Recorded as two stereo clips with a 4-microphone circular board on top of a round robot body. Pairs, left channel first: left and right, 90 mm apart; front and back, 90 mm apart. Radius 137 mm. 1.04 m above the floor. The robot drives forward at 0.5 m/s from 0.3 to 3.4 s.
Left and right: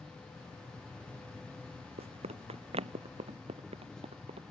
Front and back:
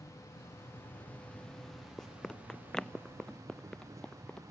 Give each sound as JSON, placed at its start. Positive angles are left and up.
{"t": 0.0, "sound": "an insect", "azimuth_deg": 15}
{"t": 2.0, "sound": "running footsteps", "azimuth_deg": -85}